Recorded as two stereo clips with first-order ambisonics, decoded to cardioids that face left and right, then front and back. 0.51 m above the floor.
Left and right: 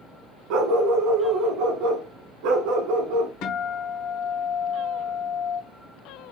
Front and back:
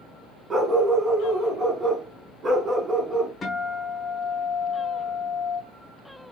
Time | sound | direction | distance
0.5 | a dog barking | 110° right | 1.0 m
3.4 | a guitar | 70° left | 1.3 m